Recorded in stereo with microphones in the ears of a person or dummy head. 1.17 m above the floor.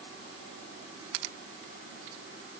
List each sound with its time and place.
Only background noise.